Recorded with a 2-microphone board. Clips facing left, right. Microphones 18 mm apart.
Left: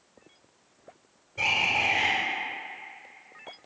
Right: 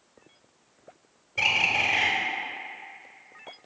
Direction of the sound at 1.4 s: 45° right (ahead or behind).